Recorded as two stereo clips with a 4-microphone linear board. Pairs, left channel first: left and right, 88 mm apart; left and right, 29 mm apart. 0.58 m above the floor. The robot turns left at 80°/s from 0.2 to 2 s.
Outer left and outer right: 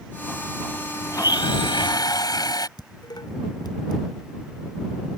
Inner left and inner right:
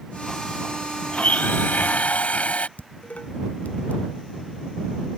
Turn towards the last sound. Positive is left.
turn(degrees=60)  # may be behind; listen again after turning